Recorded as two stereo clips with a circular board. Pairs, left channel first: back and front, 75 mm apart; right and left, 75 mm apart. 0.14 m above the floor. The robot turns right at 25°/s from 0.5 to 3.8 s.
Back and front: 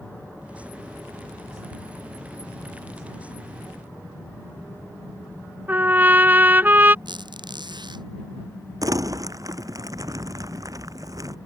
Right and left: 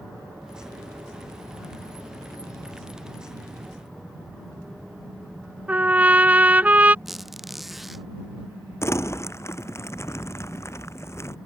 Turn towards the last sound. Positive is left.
turn(degrees=-35)